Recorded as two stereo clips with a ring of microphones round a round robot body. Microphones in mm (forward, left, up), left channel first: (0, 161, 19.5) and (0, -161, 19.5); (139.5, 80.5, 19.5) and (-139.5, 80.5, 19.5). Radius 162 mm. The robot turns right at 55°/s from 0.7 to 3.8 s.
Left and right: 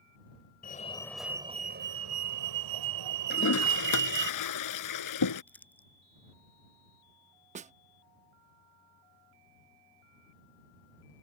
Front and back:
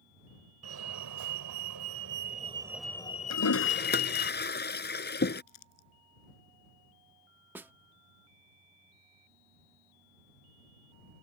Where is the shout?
I don't hear a shout.